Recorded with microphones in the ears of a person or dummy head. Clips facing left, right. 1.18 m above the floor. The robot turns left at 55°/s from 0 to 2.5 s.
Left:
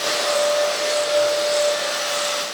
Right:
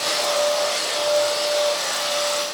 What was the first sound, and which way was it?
Only background noise.